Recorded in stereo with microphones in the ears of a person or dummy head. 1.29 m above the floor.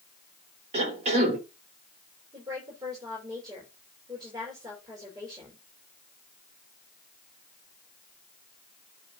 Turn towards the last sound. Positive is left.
turn(degrees=-25)  # may be behind; listen again after turning